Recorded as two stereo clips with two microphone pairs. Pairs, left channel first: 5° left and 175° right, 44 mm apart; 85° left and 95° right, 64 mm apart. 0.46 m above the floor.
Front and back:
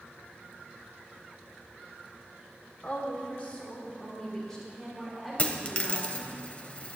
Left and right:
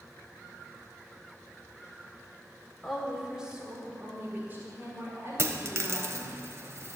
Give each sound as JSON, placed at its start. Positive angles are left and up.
{"t": 2.8, "sound": "a woman speaking", "azimuth_deg": 0, "distance_m": 1.5}
{"t": 5.4, "sound": "a dropped coin", "azimuth_deg": -55, "distance_m": 0.7}